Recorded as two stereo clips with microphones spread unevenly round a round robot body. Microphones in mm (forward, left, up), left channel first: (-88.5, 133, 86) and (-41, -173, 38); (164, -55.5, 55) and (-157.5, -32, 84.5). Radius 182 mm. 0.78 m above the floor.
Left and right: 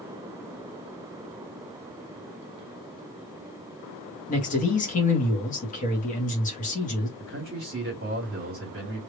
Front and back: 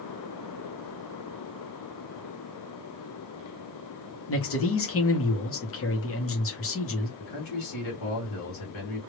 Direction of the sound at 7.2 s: 25° right.